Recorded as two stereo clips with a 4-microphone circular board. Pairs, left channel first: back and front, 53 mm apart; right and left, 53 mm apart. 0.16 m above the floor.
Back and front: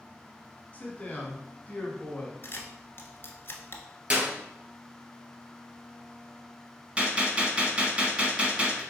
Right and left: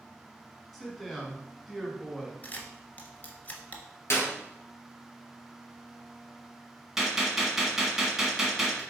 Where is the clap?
60° right, 2.5 m.